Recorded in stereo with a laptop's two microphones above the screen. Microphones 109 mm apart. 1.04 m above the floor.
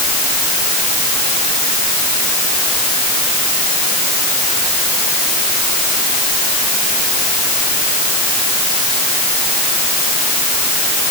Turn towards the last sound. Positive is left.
No sound to turn to.